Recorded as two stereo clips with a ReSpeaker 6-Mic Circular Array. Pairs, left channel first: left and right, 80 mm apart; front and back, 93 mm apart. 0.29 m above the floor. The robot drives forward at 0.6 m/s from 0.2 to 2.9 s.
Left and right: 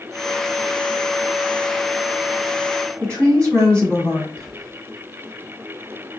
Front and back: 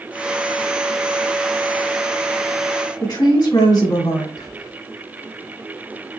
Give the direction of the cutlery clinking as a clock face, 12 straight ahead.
I don't hear cutlery clinking.